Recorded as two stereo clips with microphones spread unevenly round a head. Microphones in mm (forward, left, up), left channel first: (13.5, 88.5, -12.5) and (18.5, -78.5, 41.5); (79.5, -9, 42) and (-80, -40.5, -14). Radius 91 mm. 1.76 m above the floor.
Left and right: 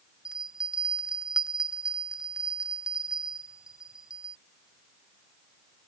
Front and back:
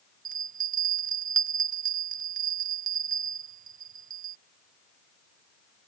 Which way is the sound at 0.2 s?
135° right.